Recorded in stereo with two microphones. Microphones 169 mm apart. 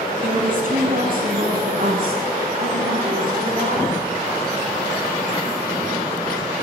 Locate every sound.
0.2 s a woman speaking: 60° right (ahead or behind), 4 m; by 4.0 s 65° right (ahead or behind), 6 m